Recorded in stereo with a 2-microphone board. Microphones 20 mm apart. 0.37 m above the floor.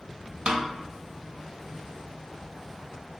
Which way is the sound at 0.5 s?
55° right (ahead or behind).